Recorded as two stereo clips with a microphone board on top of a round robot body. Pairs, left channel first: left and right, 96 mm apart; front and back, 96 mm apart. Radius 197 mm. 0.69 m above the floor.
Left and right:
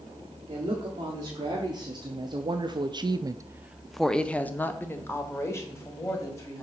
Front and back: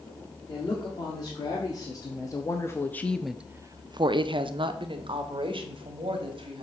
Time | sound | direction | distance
0.5 | a woman speaking | 40° right | 1.9 m